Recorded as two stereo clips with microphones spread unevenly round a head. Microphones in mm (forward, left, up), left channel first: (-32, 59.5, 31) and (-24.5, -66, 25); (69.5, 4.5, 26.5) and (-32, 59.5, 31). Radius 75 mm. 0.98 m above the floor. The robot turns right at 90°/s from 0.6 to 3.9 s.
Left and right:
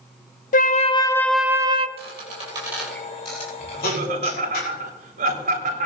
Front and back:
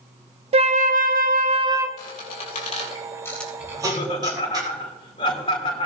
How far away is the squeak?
About 5 m.